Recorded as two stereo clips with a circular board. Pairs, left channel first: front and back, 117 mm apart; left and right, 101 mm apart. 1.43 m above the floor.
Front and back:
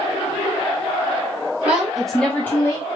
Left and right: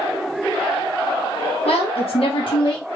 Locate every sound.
1.6 s a woman speaking: 100° left, 0.9 m; by 2.9 s 45° left, 0.6 m